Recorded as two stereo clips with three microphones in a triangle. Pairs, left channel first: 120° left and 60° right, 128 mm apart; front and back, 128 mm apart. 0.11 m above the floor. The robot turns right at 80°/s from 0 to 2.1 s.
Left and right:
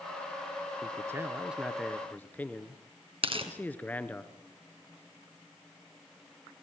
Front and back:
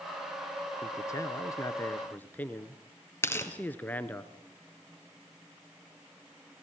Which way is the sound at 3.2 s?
65° right.